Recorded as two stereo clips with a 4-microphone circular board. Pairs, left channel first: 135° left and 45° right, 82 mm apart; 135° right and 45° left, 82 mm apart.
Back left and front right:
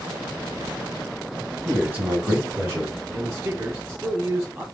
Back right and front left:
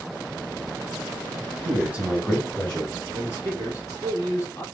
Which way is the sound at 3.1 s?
95° right.